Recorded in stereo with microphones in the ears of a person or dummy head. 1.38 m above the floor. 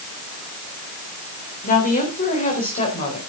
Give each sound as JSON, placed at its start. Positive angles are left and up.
{"t": 1.6, "sound": "a woman speaking", "side_deg": 45, "distance_m": 4.0}